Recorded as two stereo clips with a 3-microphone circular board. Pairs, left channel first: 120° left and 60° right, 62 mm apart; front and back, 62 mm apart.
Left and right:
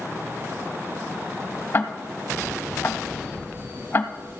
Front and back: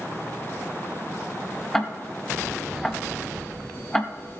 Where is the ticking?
80° left, 0.6 m.